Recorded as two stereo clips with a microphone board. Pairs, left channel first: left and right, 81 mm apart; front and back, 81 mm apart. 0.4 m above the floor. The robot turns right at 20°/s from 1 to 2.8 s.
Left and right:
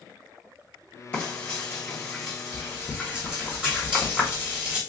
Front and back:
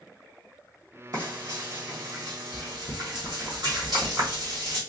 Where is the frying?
155° left, 1.9 m; by 4.8 s 170° right, 1.9 m.